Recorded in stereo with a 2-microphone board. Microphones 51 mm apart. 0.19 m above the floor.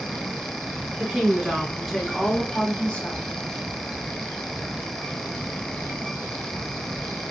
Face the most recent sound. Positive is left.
turn(degrees=35)  # may be behind; listen again after turning